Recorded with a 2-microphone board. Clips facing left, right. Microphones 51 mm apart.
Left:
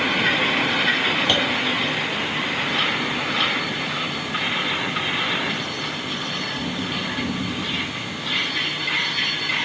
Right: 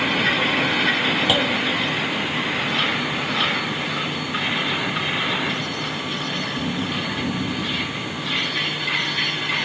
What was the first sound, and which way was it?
A clunk, 5° right (ahead or behind).